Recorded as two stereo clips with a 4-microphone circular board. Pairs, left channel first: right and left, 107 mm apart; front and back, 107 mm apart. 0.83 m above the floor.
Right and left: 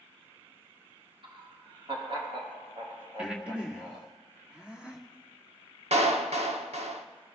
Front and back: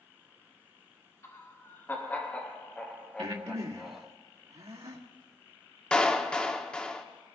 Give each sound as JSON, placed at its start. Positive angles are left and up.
{"t": 1.2, "sound": "laughter", "azimuth_deg": 60, "distance_m": 2.5}
{"t": 3.2, "sound": "breathing", "azimuth_deg": 170, "distance_m": 1.8}
{"t": 5.9, "sound": "a clap", "azimuth_deg": 80, "distance_m": 1.2}